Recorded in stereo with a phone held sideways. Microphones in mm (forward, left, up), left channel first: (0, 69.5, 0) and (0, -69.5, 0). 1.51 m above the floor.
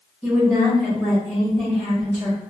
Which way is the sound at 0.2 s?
Centre (ahead or behind).